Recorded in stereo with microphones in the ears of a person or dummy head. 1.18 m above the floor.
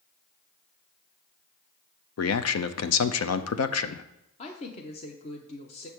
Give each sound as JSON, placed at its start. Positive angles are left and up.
{"t": 2.2, "sound": "a man speaking", "side_deg": 75, "distance_m": 0.5}
{"t": 4.4, "sound": "a woman speaking", "side_deg": 30, "distance_m": 0.7}